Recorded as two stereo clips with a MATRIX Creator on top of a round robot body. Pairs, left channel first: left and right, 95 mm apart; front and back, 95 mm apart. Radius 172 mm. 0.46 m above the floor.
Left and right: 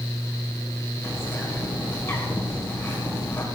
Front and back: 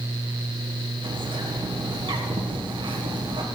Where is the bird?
155° left, 2.5 m.